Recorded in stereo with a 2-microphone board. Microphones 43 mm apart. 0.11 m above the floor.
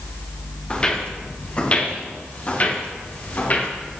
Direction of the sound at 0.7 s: 25° left (ahead or behind).